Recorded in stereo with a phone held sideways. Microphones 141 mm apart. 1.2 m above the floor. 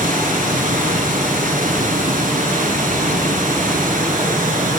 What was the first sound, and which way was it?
Running water, 70° right (ahead or behind).